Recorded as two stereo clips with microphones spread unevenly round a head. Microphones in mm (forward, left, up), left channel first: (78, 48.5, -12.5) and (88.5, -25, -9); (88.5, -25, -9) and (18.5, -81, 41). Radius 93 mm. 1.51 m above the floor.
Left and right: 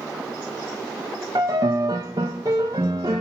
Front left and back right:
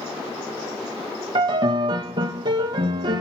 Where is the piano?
140° right, 1.0 m.